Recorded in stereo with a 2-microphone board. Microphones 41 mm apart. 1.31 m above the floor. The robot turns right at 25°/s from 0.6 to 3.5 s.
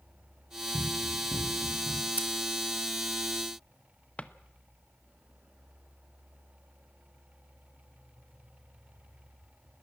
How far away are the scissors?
About 1.9 m.